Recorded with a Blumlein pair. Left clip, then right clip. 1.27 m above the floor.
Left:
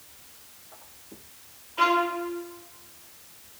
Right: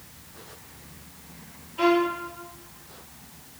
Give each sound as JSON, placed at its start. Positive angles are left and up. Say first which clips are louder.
{"t": 1.8, "sound": "a violin", "louder": "even", "azimuth_deg": 60, "distance_m": 0.9}